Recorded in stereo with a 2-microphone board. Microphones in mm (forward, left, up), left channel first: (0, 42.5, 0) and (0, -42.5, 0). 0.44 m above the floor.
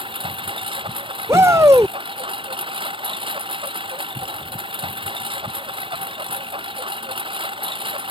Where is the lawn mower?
80° right.